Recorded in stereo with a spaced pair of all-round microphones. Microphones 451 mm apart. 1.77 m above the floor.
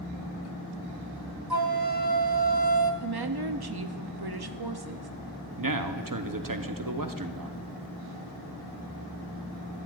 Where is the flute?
55° right (ahead or behind), 0.8 m.